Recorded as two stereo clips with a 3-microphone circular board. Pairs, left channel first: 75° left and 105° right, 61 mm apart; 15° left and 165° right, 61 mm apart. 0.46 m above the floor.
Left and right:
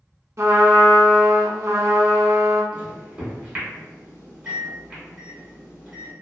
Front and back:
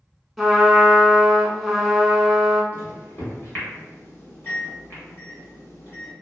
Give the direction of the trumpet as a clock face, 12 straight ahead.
3 o'clock.